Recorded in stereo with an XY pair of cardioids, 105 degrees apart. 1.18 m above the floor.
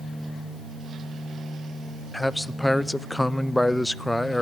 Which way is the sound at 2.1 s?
10° left.